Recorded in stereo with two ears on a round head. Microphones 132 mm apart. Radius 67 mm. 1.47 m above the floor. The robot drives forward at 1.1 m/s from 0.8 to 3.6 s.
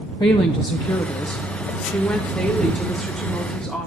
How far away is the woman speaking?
About 1.1 m.